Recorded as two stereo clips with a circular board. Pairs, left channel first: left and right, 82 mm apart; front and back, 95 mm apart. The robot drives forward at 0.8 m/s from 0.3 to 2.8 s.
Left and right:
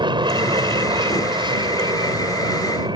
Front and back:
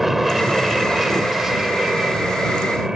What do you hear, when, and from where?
0.0 s an aircraft: 90° right; by 3.0 s 95° right